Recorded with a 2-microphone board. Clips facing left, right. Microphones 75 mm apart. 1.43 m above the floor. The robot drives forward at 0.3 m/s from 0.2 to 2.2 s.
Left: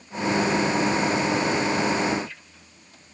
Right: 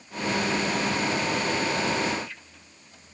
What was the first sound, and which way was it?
Only background noise.